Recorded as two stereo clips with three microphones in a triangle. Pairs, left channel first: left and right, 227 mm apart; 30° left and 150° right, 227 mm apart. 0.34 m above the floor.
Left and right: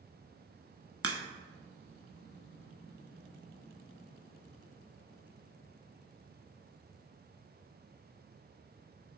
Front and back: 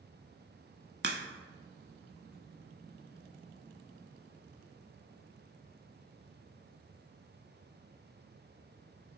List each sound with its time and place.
1.0 s a crack: 105° right, 0.7 m